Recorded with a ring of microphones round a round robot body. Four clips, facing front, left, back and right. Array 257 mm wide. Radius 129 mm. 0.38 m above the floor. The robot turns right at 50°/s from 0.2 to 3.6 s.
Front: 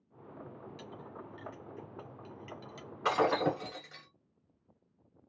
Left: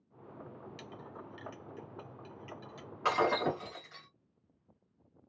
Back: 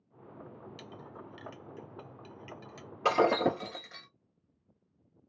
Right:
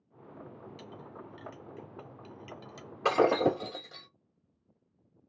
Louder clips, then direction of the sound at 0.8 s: Right 1 dB, even; 150° left.